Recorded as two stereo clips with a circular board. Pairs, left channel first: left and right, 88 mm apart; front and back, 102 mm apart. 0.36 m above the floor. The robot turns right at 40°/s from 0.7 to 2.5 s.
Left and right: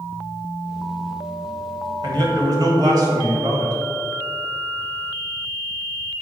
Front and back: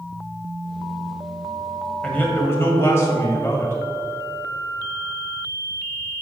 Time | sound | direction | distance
2.0 | a man speaking | 75° right | 1.8 m